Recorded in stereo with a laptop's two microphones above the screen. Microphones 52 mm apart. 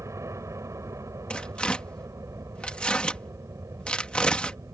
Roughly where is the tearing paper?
Left.